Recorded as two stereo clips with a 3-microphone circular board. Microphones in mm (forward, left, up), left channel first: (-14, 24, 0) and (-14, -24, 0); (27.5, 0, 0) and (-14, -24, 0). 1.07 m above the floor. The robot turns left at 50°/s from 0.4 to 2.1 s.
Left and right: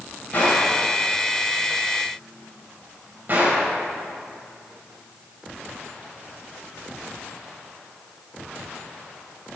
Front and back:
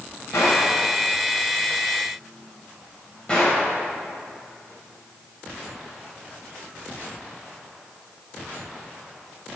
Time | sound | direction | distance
0.3 | a gunshot | 45° left | 5 m